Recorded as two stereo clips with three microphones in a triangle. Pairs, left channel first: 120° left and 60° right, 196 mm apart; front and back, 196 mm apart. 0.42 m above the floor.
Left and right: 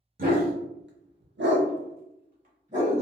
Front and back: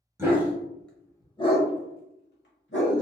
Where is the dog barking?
105° right, 0.9 m; by 3.0 s 5° right, 1.1 m.